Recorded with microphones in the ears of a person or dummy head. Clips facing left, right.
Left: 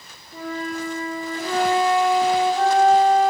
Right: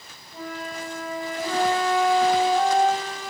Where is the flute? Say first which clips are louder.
Left 5 dB; 60° left (ahead or behind), 3.5 m.